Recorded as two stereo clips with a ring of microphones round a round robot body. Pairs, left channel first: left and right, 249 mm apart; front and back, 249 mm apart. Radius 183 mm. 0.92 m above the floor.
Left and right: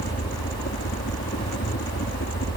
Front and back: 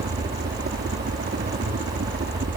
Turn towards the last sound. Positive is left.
turn(degrees=140)